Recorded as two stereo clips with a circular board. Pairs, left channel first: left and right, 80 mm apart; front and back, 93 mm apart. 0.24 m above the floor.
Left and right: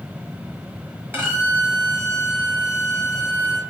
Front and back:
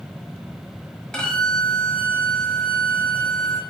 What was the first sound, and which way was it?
A violin, 75° right.